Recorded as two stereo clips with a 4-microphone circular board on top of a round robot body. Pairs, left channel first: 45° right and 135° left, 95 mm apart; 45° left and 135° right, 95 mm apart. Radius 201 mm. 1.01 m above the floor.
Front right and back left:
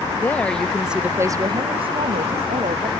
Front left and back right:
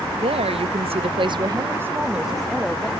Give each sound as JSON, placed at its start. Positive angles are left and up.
{"t": 0.2, "sound": "a woman speaking", "azimuth_deg": -115}